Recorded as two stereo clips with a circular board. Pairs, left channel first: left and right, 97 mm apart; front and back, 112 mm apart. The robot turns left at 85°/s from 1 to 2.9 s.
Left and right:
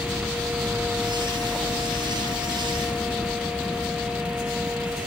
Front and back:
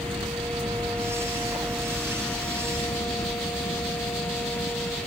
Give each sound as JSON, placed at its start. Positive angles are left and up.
{"t": 0.0, "sound": "a helicopter", "azimuth_deg": -170}